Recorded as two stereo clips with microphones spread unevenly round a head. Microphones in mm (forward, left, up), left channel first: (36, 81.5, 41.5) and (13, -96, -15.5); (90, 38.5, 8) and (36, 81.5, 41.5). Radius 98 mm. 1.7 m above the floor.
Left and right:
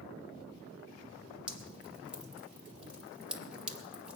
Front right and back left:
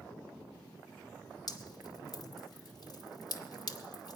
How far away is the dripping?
About 2 m.